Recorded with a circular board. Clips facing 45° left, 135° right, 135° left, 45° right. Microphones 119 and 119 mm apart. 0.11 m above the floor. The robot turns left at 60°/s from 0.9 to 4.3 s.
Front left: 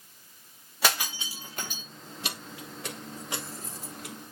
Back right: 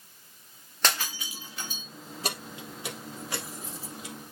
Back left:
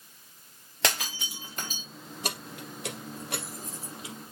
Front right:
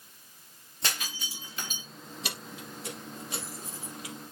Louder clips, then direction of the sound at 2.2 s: Back right 4 dB, back left 4 dB; straight behind.